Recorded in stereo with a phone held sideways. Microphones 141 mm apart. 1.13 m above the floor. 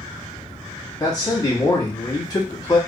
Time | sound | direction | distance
1.0 | a man speaking | 25° left (ahead or behind) | 1.0 m